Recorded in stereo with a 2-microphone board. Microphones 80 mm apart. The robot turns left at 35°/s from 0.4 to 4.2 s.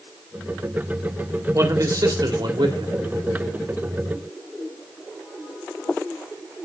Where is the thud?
No thud in this recording.